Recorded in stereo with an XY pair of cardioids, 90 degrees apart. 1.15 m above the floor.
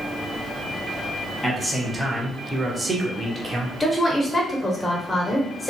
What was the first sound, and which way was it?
A man speaking, straight ahead.